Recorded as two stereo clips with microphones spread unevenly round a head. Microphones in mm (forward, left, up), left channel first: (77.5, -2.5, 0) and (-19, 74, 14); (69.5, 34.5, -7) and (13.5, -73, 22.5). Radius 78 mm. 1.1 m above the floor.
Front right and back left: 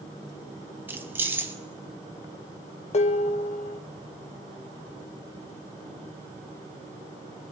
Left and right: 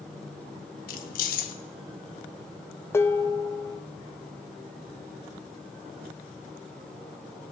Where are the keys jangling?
70° left, 0.7 m.